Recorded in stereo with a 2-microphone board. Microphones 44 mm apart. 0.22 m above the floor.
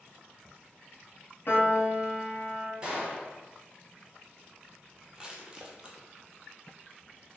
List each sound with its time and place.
1.5 s a piano: 55° left (ahead or behind), 1.1 m
2.8 s a gunshot: 20° right (ahead or behind), 1.5 m
5.2 s crushing: 20° right (ahead or behind), 1.0 m